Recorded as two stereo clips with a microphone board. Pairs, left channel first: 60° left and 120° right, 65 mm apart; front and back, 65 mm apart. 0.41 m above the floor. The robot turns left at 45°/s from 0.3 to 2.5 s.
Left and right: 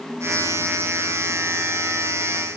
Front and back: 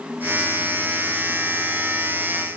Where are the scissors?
No scissors in this recording.